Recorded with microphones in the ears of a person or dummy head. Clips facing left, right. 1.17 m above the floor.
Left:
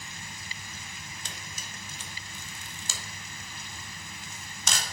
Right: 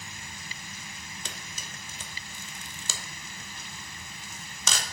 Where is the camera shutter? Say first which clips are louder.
Right 1 dB; 70° right (ahead or behind), 1.0 m.